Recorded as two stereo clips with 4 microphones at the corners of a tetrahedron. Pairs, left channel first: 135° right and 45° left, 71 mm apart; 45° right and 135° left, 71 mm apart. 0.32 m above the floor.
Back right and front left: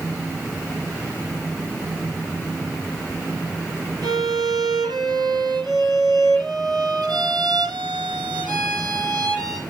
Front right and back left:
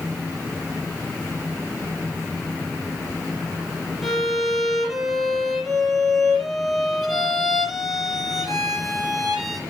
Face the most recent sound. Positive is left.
turn(degrees=45)